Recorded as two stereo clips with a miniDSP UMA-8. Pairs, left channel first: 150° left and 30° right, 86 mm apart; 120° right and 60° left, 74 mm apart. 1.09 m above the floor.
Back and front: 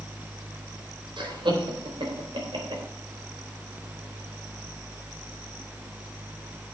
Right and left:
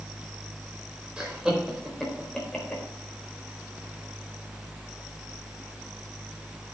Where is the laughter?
15° right, 4 m; by 2.8 s 45° right, 4 m.